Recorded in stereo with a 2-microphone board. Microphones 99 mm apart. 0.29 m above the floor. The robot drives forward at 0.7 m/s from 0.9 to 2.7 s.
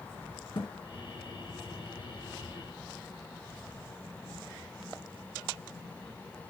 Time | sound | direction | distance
0.6 | a thud | 60° left (ahead or behind) | 1.9 m